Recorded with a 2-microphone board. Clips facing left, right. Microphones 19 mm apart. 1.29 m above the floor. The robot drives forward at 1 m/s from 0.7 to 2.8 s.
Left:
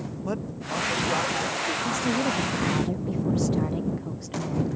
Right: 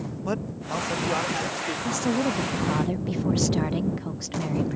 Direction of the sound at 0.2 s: 30° right (ahead or behind).